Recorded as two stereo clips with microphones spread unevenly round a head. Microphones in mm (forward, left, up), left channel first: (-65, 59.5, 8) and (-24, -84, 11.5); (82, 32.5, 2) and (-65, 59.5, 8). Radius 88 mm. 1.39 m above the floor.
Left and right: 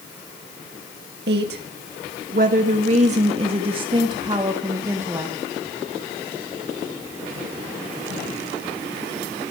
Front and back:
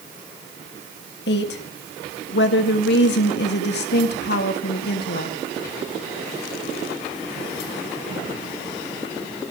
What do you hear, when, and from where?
1.3 s a woman speaking: 40° right, 3 m; by 5.4 s 5° left, 3.5 m